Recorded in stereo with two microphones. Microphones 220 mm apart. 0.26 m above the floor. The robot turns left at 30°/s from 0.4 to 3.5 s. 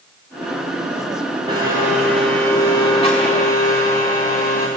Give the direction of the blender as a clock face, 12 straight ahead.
5 o'clock.